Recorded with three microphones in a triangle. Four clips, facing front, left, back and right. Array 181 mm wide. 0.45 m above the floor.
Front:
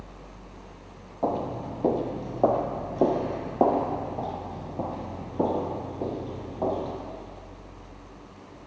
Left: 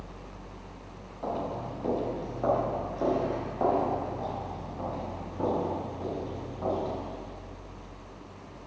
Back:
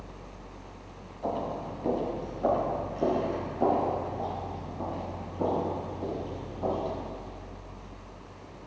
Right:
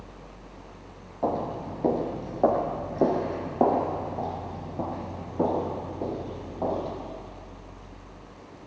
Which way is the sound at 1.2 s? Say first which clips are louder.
Right 5 dB, front 4 dB; 35° right.